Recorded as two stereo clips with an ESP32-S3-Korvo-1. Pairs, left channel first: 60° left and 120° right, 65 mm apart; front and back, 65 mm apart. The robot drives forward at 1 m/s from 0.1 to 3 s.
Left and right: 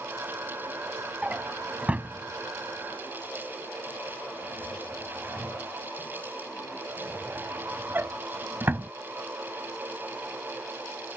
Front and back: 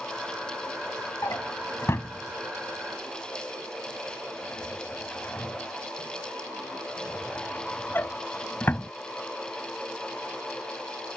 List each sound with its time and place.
1.2 s a drawer: 45° right; by 8.9 s 60° right